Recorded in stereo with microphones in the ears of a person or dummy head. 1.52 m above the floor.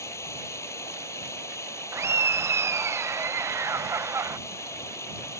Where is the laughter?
15° right (ahead or behind).